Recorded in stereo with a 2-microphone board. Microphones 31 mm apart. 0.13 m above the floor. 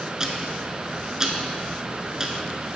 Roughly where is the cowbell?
I don't hear a cowbell.